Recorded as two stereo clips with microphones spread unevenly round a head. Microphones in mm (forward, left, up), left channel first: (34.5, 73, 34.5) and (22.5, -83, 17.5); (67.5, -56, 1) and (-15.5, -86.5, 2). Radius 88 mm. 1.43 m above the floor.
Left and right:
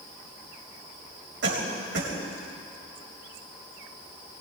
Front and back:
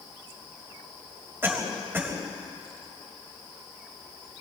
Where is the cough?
95° right, 6.5 m.